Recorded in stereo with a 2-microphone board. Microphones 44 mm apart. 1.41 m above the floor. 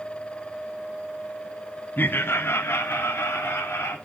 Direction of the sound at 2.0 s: 45° left (ahead or behind).